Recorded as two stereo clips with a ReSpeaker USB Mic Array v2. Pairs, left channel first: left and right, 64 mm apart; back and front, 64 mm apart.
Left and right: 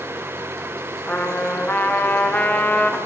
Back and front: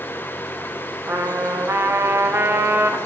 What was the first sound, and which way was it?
A trumpet, 35° left.